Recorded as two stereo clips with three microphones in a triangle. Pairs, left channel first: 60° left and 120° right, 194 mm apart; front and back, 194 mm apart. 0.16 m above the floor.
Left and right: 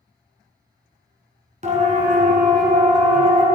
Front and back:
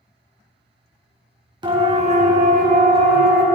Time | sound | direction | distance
1.6 | a siren | 130° right | 2 m